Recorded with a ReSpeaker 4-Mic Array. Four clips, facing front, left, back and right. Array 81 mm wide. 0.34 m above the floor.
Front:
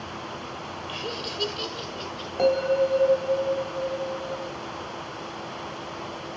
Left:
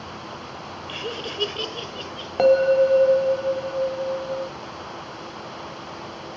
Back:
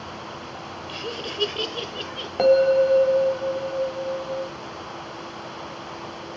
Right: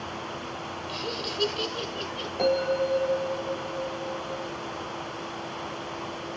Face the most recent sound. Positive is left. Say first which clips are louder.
# left 9 dB, back 5 dB
turn(degrees=115)